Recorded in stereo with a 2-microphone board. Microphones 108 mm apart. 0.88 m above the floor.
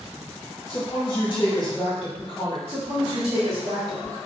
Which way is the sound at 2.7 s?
60° right (ahead or behind).